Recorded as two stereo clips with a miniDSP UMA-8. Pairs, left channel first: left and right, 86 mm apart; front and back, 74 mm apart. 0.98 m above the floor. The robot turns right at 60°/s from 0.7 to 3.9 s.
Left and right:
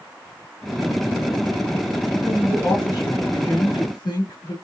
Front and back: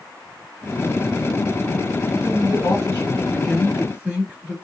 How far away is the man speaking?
About 1.6 m.